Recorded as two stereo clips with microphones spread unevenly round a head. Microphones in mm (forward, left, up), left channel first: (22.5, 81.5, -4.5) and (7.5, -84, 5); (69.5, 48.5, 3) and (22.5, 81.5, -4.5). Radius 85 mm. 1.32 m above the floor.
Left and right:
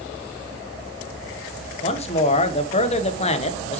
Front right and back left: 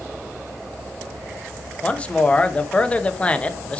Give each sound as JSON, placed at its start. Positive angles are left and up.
{"t": 1.8, "sound": "a man speaking", "azimuth_deg": 35, "distance_m": 1.2}